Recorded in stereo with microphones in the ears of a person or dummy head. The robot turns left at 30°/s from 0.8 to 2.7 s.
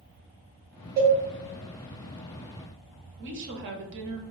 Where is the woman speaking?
60° right (ahead or behind), 0.7 m.